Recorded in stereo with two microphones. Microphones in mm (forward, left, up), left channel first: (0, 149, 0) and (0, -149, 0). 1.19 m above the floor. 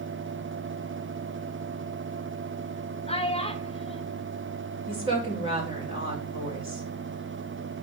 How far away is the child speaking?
About 1.0 m.